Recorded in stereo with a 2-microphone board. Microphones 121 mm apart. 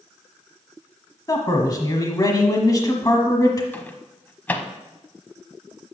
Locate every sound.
1.3 s a man speaking: 30° left (ahead or behind), 1.2 m
3.7 s a microwave: 15° left (ahead or behind), 0.8 m